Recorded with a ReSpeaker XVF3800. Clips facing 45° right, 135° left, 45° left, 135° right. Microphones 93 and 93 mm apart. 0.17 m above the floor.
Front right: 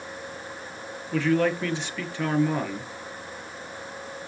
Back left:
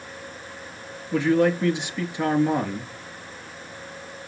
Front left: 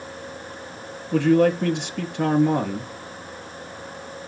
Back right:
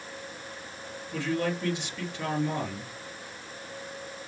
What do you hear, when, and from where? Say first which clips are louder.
1.1 s a man speaking: back left 3 dB, front left 12 dB; 60° left, 3 m